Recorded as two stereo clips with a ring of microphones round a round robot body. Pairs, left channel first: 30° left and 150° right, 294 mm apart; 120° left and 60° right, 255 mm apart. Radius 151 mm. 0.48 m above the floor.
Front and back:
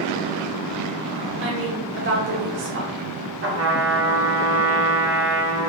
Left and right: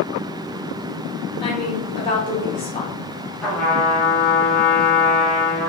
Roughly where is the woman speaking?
Behind.